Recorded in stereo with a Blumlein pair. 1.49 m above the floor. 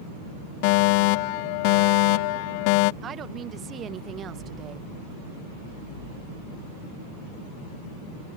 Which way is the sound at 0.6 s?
45° left.